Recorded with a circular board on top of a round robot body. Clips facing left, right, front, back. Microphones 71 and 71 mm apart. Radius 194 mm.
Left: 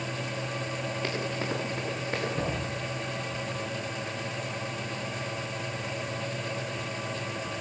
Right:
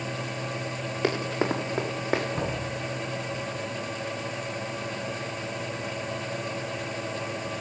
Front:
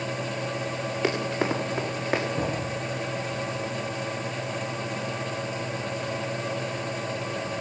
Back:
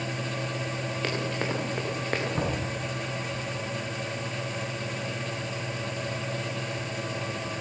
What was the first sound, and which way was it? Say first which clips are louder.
Running footsteps: right 8 dB, front 5 dB; 75° right.